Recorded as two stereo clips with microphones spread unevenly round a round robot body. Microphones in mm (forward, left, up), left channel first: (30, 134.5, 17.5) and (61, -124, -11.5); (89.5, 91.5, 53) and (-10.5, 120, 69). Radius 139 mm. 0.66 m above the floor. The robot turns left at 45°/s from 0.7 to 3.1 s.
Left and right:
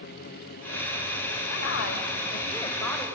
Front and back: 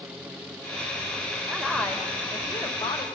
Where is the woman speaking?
75° left, 3 m; by 3.1 s 5° left, 3 m.